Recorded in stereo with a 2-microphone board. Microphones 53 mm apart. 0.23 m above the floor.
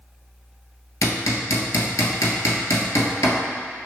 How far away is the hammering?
About 0.9 m.